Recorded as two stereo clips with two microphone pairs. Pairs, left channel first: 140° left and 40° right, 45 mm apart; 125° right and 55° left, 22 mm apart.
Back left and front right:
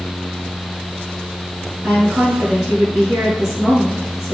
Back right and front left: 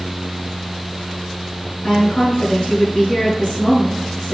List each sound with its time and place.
1.8 s a woman speaking: 120° right, 6.5 m